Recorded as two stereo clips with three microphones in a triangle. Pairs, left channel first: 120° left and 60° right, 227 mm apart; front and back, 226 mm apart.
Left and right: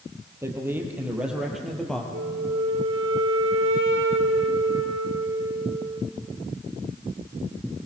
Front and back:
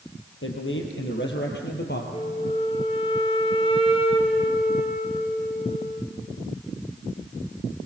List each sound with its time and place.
0.4 s a man speaking: 20° left, 4 m; by 2.0 s 35° left, 3.5 m
2.1 s a flute: 65° right, 1.7 m